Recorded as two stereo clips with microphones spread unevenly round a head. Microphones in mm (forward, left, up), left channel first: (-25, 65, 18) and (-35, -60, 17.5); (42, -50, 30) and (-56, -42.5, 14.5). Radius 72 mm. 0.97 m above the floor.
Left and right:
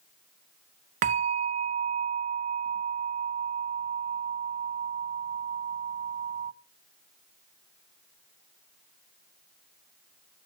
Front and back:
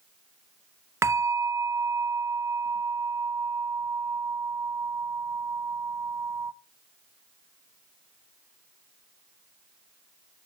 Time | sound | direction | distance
1.0 | a bell | 120° right | 0.5 m